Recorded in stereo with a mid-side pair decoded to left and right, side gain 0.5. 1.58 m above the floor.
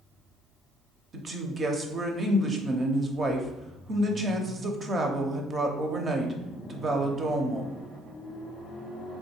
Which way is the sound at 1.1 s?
35° right.